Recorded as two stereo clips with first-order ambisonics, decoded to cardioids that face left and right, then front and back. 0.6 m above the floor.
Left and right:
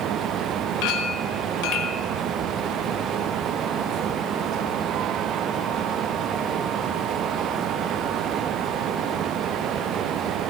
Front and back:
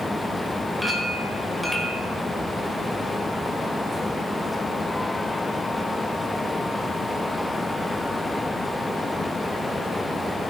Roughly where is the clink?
Left.